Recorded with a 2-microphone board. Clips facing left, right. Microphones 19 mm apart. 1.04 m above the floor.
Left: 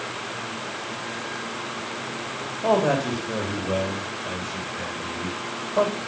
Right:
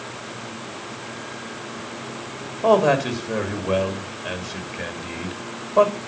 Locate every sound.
2.6 s a man speaking: 25° right (ahead or behind), 2 m